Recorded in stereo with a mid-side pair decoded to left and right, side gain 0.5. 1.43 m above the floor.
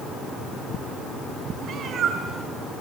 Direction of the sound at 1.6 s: 60° right.